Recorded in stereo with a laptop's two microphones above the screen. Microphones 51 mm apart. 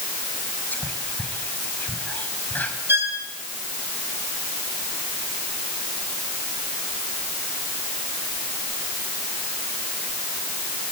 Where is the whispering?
35° left (ahead or behind), 5.5 m.